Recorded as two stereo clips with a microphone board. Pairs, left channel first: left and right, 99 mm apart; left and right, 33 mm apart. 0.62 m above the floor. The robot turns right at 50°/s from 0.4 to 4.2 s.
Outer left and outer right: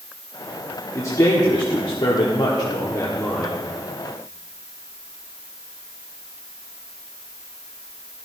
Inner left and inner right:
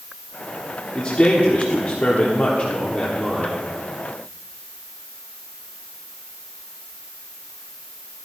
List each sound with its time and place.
0.9 s a man speaking: 35° left, 1.4 m; by 3.6 s 170° left, 1.4 m